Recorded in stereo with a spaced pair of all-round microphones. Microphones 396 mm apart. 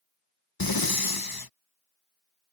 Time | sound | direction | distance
0.6 | breathing | 60° left (ahead or behind) | ?